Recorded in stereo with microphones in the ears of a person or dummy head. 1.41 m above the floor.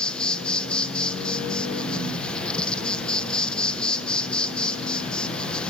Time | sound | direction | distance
0.0 | an insect | centre (ahead or behind) | 1.0 m